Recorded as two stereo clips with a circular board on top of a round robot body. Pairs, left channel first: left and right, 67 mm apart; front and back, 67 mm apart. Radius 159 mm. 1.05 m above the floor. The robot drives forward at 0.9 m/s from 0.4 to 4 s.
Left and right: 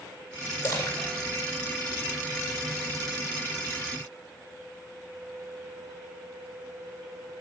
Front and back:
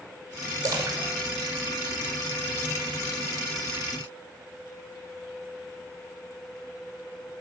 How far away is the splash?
About 2.5 m.